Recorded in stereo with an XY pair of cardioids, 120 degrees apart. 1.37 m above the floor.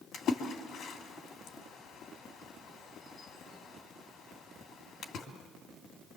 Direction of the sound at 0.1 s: 60° left.